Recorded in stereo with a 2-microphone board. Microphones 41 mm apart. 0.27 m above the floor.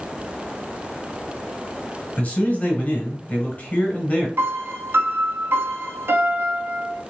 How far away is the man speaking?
About 1.4 m.